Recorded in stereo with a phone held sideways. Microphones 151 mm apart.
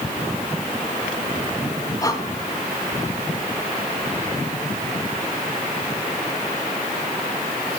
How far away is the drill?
No drill in this recording.